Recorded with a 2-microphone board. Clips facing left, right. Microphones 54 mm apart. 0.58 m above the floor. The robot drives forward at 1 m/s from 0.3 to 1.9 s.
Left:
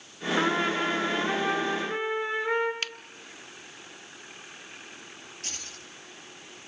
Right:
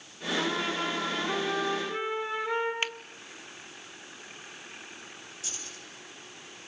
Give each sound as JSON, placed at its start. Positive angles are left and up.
{"t": 0.4, "sound": "a trumpet", "side_deg": 45, "distance_m": 4.0}
{"t": 2.8, "sound": "a finger snap", "side_deg": -20, "distance_m": 0.8}
{"t": 5.4, "sound": "keys jangling", "side_deg": 55, "distance_m": 7.0}